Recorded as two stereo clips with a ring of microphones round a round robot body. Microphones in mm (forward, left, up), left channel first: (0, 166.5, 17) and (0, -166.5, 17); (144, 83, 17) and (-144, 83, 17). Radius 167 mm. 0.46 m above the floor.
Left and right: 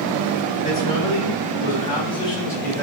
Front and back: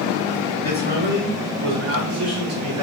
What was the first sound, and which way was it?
A man speaking, 130° left.